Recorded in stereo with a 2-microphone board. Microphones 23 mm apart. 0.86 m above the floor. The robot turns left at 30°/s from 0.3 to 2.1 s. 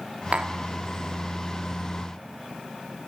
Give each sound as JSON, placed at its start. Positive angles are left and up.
{"t": 0.3, "sound": "tapping", "side_deg": -65, "distance_m": 1.5}